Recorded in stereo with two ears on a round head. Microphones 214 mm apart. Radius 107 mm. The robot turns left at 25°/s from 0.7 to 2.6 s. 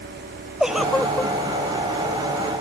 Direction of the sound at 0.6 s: Centre (ahead or behind).